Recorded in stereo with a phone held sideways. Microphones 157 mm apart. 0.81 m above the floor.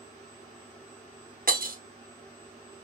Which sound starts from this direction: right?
Breaking glass, at 1.5 s.